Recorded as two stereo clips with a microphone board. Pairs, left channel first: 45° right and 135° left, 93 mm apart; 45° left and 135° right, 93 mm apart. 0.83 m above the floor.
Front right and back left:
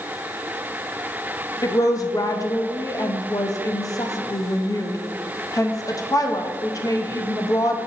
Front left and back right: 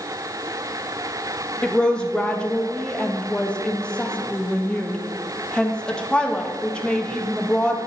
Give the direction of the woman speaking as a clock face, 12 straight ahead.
1 o'clock.